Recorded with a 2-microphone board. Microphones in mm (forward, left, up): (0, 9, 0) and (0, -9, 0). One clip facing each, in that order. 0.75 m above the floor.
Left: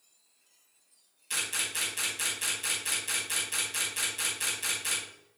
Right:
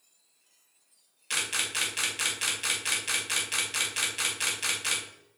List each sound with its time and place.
1.3 s a camera shutter: 40° right (ahead or behind), 2 m